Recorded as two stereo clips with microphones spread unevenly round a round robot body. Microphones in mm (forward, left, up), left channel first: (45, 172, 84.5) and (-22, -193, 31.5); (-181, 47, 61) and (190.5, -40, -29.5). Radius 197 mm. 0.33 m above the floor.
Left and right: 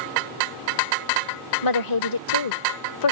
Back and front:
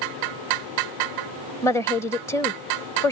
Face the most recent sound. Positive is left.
turn(degrees=75)